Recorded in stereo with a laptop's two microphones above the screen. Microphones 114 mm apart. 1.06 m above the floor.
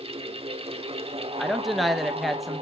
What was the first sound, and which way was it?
A fan, 60° right (ahead or behind).